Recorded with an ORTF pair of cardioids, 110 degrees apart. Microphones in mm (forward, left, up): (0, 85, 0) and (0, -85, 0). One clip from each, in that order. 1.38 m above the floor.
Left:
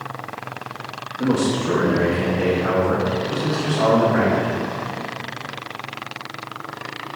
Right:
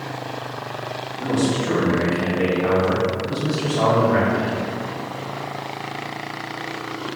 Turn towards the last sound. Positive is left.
turn(degrees=-60)